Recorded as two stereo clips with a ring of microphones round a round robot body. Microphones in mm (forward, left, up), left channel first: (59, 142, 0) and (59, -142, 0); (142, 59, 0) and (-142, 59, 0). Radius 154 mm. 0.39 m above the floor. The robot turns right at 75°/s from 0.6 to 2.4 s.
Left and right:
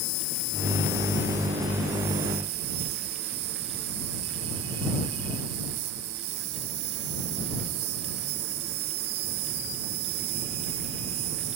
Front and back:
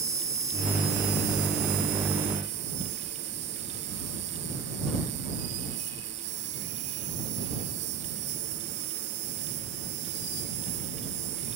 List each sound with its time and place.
0.0 s an insect: 100° left; by 11.6 s 125° right